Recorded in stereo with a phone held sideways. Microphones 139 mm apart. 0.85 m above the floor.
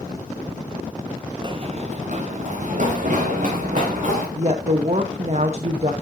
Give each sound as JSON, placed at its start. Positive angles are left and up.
{"t": 1.4, "sound": "running footsteps", "side_deg": -30, "distance_m": 0.9}
{"t": 4.3, "sound": "a woman speaking", "side_deg": -50, "distance_m": 0.9}